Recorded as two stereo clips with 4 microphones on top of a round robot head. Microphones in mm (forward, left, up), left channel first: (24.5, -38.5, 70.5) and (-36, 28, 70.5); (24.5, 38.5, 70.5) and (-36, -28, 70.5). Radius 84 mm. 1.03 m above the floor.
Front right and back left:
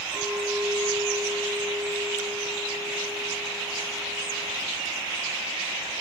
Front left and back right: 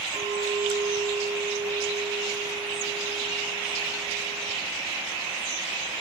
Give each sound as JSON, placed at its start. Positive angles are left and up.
{"t": 0.1, "sound": "a clink", "azimuth_deg": -155, "distance_m": 6.0}